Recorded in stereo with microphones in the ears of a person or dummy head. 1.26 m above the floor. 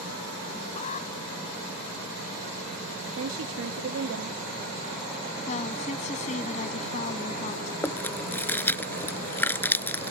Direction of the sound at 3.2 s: 70° right (ahead or behind).